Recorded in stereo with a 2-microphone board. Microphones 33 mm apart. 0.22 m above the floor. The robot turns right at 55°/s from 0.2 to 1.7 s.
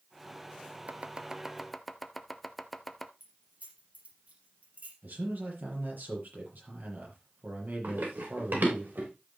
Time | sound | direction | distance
0.9 | chopping | 45° right (ahead or behind) | 0.7 m
3.2 | keys jangling | 60° right (ahead or behind) | 4 m
5.0 | a man speaking | 70° right (ahead or behind) | 6.5 m
7.8 | running footsteps | 85° right | 7 m